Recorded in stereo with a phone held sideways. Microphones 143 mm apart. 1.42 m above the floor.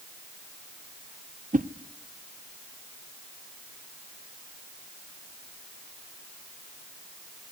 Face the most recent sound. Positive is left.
turn(degrees=-70)  # may be behind; listen again after turning